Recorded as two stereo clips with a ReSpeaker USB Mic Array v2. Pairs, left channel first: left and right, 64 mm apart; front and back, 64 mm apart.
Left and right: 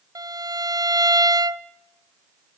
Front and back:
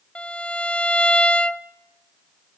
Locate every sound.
0.1 s a violin: 75° right, 0.7 m